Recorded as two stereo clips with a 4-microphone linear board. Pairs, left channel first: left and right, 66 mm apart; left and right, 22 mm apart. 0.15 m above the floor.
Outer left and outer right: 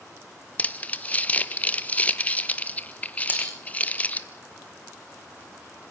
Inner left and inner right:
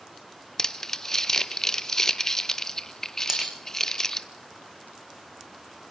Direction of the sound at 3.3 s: 30° right (ahead or behind).